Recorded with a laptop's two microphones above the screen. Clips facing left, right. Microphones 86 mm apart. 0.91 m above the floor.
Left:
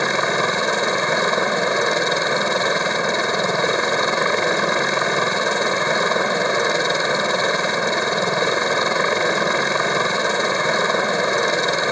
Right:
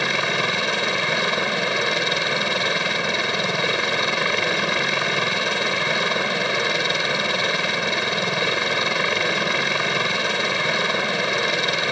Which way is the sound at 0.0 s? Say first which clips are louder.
Left 4 dB; 25° left (ahead or behind).